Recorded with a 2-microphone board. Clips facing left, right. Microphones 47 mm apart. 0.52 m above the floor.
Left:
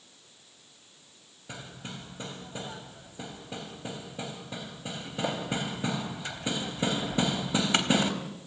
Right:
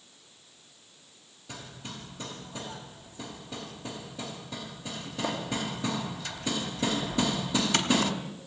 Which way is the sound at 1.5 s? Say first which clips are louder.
Left 1 dB; 25° left (ahead or behind).